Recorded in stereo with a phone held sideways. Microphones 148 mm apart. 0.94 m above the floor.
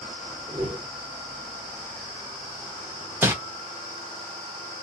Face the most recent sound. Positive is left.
turn(degrees=-15)  # may be behind; listen again after turning